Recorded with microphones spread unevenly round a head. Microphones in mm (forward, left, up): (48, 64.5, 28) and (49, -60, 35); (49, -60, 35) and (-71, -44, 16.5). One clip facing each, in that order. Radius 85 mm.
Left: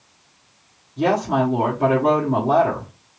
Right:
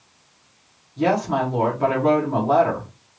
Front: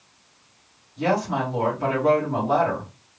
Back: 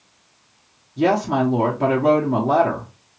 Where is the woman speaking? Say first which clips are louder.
Left 1 dB, back 5 dB; 170° left, 1.0 m.